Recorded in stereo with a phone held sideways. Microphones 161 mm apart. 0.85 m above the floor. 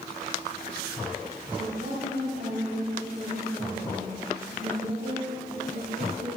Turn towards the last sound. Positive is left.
turn(degrees=-60)  # may be behind; listen again after turning